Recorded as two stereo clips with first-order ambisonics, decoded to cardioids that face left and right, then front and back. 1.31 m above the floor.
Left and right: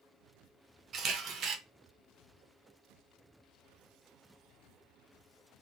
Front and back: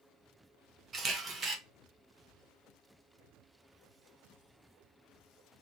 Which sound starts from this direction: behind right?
A camera shutter, at 0.9 s.